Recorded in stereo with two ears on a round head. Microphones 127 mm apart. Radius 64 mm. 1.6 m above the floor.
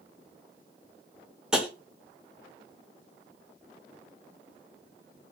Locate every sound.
1.5 s tapping: 5° right (ahead or behind), 0.6 m